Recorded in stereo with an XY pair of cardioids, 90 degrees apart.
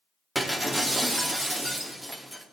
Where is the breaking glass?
10° right, 2.5 m.